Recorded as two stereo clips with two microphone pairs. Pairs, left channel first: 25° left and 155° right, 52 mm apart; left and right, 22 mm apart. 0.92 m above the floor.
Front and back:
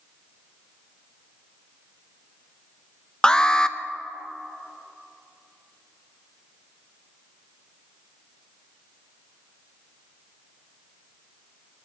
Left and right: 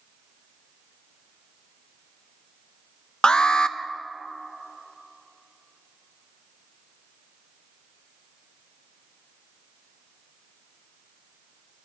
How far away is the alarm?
About 0.6 m.